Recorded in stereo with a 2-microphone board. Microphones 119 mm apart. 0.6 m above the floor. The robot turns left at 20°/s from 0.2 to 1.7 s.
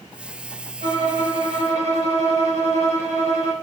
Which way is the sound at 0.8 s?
80° right.